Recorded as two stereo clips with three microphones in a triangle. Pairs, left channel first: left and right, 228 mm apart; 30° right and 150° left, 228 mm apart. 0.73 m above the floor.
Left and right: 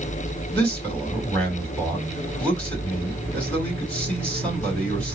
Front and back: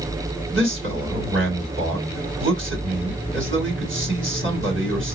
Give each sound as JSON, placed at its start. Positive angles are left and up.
{"t": 0.5, "sound": "a man speaking", "azimuth_deg": 175, "distance_m": 2.5}